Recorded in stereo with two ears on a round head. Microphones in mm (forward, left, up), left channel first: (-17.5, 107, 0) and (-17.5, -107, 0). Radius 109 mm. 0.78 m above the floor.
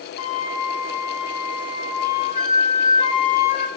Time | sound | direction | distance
0.2 | a flute | 70° left (ahead or behind) | 3 m